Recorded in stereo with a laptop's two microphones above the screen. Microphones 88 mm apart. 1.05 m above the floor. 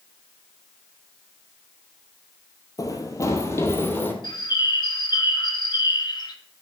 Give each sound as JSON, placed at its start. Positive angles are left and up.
{"t": 2.8, "sound": "running footsteps", "side_deg": 40, "distance_m": 1.4}
{"t": 4.2, "sound": "a bird", "side_deg": 50, "distance_m": 1.2}